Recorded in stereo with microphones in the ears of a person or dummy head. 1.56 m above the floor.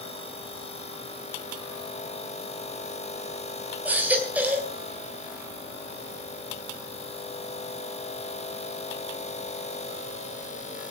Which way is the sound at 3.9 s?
5° right (ahead or behind).